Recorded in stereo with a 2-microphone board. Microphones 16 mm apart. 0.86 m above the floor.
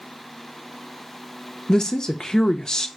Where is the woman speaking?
40° left (ahead or behind), 0.7 m.